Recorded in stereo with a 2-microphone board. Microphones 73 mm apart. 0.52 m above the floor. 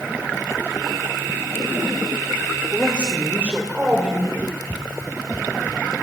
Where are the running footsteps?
20° right (ahead or behind), 0.9 m; by 5.8 s centre (ahead or behind), 2.5 m.